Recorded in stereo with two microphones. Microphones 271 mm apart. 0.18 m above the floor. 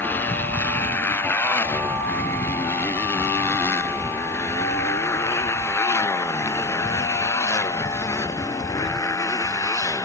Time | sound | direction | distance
0.0 | a motorcycle | 5° left (ahead or behind) | ?